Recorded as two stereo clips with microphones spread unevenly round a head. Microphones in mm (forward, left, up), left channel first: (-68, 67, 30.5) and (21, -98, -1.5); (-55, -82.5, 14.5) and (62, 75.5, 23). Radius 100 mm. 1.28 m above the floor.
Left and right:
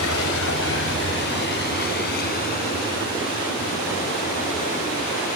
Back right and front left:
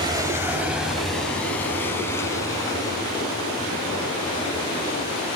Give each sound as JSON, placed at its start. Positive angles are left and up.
{"t": 0.0, "sound": "a vehicle", "azimuth_deg": 120}